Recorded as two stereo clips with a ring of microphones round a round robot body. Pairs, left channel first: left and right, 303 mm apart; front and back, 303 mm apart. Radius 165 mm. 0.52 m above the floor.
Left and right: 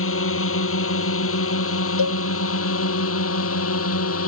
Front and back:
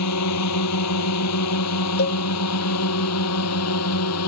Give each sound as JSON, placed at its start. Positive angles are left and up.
{"t": 0.0, "sound": "a drone", "azimuth_deg": 45}
{"t": 2.0, "sound": "a cowbell", "azimuth_deg": 60}